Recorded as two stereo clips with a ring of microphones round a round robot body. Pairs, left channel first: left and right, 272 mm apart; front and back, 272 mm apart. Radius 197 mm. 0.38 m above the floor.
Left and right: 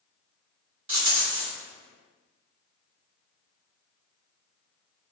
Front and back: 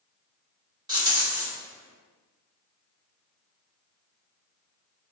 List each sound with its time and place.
0.9 s a rattle: 110° right, 1.6 m